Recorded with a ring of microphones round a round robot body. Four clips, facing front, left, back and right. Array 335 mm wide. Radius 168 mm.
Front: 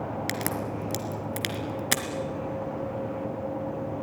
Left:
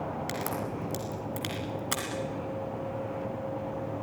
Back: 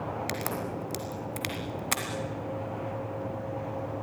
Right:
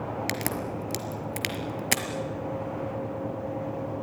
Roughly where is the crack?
Ahead right.